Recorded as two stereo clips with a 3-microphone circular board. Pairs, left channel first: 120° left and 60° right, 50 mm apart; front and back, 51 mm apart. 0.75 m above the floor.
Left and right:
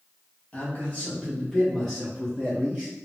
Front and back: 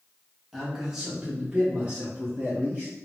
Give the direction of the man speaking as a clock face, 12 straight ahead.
9 o'clock.